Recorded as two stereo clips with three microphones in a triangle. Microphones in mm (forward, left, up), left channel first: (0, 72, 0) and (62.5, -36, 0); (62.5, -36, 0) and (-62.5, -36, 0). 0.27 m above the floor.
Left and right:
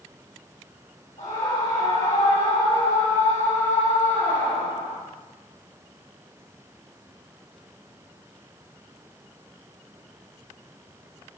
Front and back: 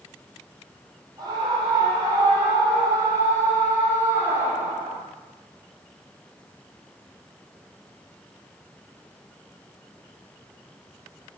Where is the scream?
125° left, 8 m; by 5.0 s 110° left, 7.5 m.